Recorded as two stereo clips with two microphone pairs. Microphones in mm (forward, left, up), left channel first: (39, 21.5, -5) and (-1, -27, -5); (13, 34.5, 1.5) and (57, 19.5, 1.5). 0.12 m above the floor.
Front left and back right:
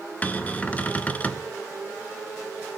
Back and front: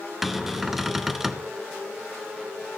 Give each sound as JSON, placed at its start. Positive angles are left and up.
{"t": 0.2, "sound": "a cupboard door", "azimuth_deg": 50, "distance_m": 0.6}